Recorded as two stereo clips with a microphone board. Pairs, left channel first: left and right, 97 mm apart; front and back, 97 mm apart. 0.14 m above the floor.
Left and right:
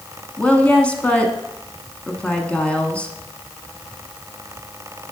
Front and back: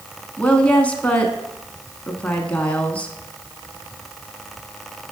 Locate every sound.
0.4 s a woman speaking: 40° left, 1.0 m